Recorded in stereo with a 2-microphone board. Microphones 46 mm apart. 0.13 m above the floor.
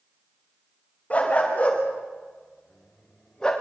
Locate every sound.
1.1 s a dog barking: 30° left (ahead or behind), 7.5 m; by 3.5 s 15° left (ahead or behind), 7.5 m